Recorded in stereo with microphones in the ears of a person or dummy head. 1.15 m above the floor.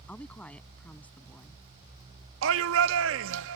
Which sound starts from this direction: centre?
A woman speaking, at 0.1 s.